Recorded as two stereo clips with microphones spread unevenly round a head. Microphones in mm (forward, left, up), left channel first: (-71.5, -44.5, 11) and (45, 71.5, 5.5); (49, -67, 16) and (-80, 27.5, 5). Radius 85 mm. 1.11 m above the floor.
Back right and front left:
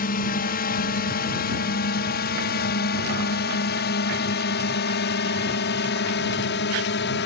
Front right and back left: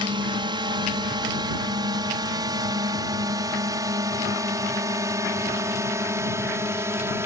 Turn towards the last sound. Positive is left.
turn(degrees=-140)